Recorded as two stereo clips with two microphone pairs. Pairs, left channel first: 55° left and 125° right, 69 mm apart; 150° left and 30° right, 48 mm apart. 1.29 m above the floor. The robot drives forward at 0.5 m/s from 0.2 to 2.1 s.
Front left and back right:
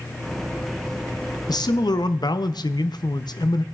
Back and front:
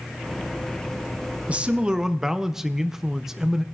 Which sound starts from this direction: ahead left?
A man speaking, at 1.5 s.